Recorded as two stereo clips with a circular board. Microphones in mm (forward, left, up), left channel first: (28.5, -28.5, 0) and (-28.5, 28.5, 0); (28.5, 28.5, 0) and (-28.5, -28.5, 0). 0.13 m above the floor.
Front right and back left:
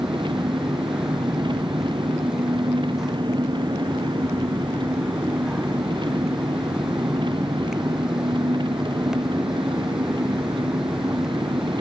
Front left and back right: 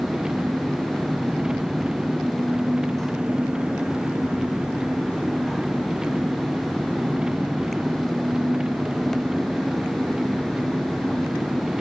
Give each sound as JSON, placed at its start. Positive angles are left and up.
{"t": 0.0, "sound": "an engine running", "azimuth_deg": 145}